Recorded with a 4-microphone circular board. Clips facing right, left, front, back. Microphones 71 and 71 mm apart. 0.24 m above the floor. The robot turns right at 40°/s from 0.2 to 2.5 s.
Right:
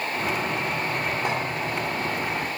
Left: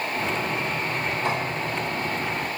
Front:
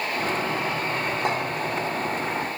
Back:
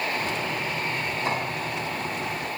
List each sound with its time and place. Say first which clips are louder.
1.2 s a clink: left 2 dB, front 2 dB; 20° right, 3.5 m; by 1.4 s 15° right, 3.5 m